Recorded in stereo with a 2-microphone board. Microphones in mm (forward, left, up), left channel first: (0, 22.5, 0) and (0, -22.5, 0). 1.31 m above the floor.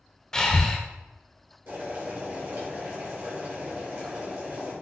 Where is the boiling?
60° right (ahead or behind), 1.8 m.